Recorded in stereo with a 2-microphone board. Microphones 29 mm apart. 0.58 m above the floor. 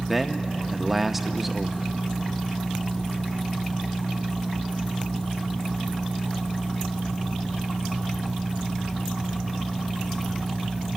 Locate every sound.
0.1 s a man speaking: 10° right (ahead or behind), 0.6 m